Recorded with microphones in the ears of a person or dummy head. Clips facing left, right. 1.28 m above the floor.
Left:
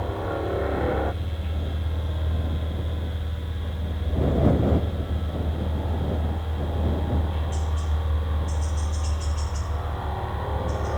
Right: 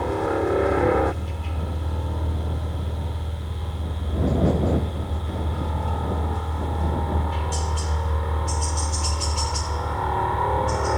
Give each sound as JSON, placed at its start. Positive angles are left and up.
{"t": 0.0, "sound": "a helicopter", "side_deg": -70}